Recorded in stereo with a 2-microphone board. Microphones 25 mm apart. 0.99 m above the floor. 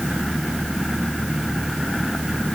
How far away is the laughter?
I don't hear laughter.